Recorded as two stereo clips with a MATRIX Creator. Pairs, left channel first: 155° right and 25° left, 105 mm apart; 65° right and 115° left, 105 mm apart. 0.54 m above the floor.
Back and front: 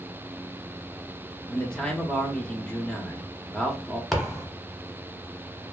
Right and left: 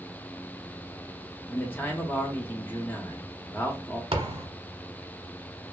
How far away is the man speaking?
About 0.6 m.